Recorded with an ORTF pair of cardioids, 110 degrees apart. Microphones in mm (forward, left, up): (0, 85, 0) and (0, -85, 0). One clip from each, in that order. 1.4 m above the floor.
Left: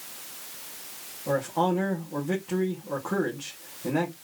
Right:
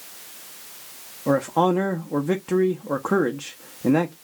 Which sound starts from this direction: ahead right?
A man speaking, at 1.3 s.